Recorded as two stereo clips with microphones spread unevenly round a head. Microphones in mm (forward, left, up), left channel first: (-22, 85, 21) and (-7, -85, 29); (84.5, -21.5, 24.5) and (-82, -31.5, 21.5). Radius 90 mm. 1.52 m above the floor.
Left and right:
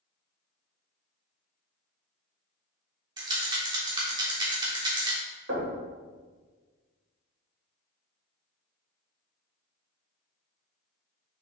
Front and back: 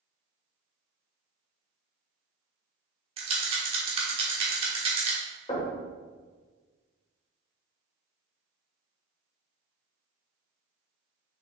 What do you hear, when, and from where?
3.2 s a rattle: 135° right, 1.3 m
5.5 s knocking: 55° right, 2 m